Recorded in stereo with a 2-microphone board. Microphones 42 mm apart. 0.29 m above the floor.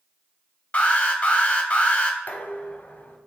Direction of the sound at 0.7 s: 30° left (ahead or behind).